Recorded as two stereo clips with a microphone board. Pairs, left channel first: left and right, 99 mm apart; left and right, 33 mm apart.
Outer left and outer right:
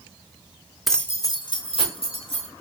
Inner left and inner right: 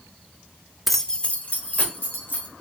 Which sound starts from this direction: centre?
Keys jangling, at 0.9 s.